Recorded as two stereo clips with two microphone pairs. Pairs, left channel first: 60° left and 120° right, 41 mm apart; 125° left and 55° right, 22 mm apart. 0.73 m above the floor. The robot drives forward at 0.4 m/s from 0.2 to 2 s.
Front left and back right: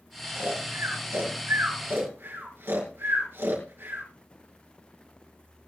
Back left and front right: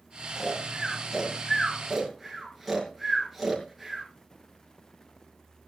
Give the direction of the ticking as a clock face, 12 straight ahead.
No ticking in this recording.